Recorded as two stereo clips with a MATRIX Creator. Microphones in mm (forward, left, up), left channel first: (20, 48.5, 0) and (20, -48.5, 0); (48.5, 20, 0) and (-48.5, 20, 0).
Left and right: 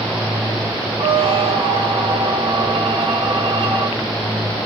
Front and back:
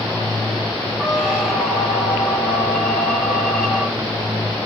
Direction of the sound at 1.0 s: 100° right.